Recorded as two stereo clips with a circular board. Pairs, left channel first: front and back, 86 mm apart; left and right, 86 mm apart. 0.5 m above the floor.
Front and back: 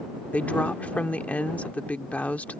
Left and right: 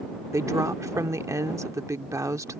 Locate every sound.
0.3 s a woman speaking: 65° right